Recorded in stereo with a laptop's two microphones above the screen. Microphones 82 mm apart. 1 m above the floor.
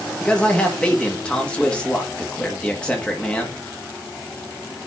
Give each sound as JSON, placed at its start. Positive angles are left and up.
{"t": 0.2, "sound": "a man speaking", "side_deg": 15, "distance_m": 1.9}